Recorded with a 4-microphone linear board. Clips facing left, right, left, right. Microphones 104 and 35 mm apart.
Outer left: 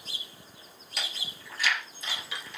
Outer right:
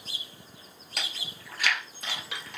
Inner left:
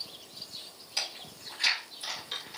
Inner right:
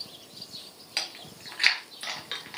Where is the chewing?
55° right (ahead or behind), 2 m.